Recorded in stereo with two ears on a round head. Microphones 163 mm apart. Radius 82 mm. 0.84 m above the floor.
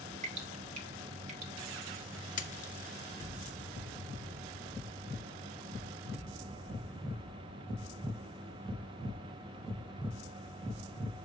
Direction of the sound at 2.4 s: 40° left (ahead or behind).